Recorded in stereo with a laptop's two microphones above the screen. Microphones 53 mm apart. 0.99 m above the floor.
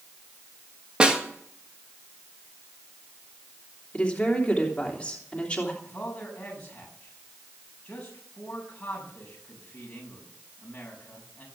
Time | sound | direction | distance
1.0 | a snare drum | 20° right (ahead or behind) | 1.5 m
3.9 | a woman speaking | 20° left (ahead or behind) | 3 m
5.8 | a man speaking | 25° left (ahead or behind) | 7.5 m